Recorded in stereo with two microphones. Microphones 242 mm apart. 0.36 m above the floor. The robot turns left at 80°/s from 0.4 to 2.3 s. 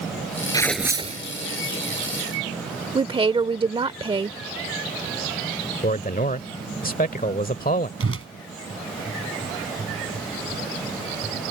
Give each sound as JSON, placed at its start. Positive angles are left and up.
{"t": 0.5, "sound": "tearing paper", "azimuth_deg": 15}
{"t": 3.0, "sound": "a woman speaking", "side_deg": -20}
{"t": 5.8, "sound": "a man speaking", "side_deg": 35}
{"t": 8.0, "sound": "a whoosh", "side_deg": -65}